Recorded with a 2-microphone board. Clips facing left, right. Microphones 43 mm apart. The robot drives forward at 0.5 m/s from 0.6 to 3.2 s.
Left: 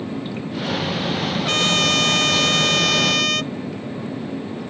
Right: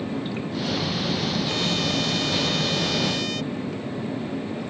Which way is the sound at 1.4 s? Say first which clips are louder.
Left 6 dB; 75° left (ahead or behind).